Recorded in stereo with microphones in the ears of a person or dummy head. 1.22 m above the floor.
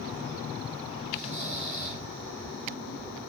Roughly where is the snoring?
Centre.